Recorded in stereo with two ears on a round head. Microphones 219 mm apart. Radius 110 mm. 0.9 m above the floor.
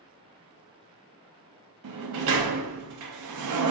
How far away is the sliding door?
About 0.5 m.